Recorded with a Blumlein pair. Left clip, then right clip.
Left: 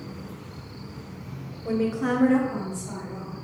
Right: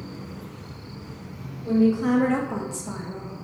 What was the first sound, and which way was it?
A woman speaking, 25° left.